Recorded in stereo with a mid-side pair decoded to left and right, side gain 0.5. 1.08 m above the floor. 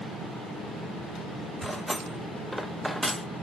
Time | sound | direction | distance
1.6 | cutlery clinking | 5° right | 0.6 m